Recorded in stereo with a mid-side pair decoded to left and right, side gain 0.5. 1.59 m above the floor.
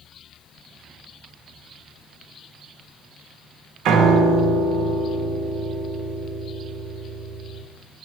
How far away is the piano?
About 0.5 m.